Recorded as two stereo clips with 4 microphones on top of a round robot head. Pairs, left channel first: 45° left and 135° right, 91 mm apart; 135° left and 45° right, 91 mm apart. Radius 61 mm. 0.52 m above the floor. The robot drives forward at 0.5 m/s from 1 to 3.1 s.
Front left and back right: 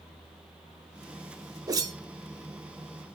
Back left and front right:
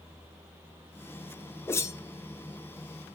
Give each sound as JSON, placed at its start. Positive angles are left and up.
{"t": 1.7, "sound": "a whoosh", "azimuth_deg": -170, "distance_m": 0.7}